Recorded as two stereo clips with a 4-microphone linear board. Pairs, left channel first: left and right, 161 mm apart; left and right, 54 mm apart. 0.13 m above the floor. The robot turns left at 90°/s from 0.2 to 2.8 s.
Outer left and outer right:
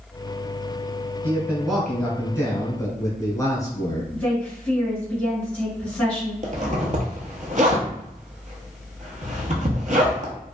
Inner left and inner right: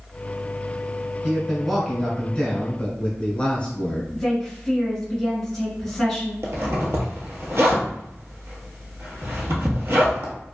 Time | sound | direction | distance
1.2 | a man speaking | 15° right (ahead or behind) | 1.1 m
4.1 | a woman speaking | 10° left (ahead or behind) | 1.5 m
6.4 | a zipper | 50° right (ahead or behind) | 0.9 m